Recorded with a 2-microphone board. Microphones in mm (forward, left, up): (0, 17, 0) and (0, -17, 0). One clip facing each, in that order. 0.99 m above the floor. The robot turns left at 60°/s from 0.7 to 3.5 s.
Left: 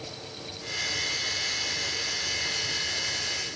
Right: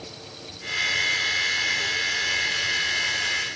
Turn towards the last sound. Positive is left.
No sound to turn to.